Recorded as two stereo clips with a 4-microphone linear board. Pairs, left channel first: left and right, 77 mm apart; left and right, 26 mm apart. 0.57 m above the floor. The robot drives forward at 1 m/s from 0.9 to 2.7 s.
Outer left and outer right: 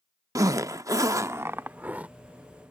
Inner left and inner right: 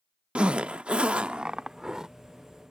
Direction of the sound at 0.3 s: 45° right (ahead or behind).